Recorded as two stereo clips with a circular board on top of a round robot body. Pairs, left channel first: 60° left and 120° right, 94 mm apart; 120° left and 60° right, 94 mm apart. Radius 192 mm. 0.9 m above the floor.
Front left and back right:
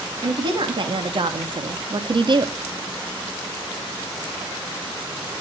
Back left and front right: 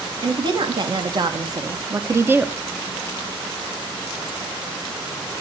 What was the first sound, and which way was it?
A woman speaking, 90° right.